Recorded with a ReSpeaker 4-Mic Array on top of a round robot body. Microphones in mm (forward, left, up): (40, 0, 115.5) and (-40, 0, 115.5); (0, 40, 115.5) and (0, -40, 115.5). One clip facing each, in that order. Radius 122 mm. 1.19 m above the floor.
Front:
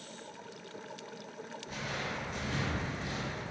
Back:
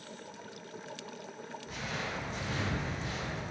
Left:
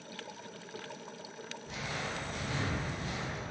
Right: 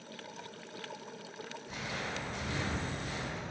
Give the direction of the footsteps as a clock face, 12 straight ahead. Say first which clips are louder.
Even, left 1 dB; 9 o'clock.